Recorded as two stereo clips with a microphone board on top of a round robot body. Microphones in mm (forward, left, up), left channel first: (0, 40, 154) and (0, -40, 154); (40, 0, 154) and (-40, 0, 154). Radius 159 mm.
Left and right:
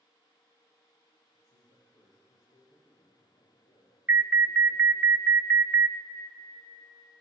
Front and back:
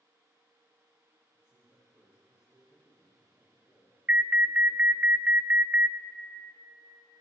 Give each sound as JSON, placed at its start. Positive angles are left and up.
{"t": 1.3, "sound": "a man speaking", "azimuth_deg": 105, "distance_m": 10.0}
{"t": 4.1, "sound": "an alarm", "azimuth_deg": -130, "distance_m": 0.9}